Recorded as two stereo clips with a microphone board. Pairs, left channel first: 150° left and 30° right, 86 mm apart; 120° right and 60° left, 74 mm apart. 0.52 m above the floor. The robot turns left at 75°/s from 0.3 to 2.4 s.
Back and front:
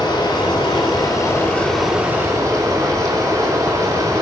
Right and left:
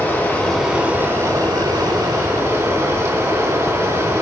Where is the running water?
175° left, 3.5 m; by 4.2 s 15° left, 3.5 m.